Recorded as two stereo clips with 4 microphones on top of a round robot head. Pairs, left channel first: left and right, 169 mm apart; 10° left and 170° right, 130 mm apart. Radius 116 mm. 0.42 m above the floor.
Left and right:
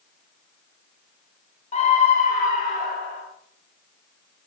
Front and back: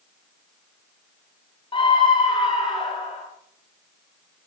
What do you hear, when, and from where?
1.7 s a scream: 50° left, 2 m; by 3.2 s 60° left, 3 m